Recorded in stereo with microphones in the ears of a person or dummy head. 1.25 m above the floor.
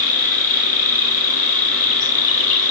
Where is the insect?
40° left (ahead or behind), 1.1 m.